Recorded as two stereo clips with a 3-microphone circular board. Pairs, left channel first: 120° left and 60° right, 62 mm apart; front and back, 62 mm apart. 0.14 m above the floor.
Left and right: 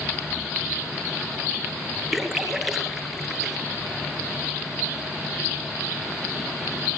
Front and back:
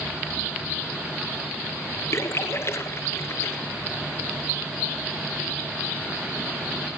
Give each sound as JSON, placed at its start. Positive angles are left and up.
{"t": 2.1, "sound": "a splash", "azimuth_deg": 25, "distance_m": 2.0}